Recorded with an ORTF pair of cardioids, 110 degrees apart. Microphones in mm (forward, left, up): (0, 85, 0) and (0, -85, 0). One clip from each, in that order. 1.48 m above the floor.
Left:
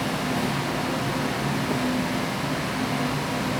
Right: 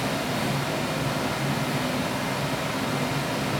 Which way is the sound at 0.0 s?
25° right.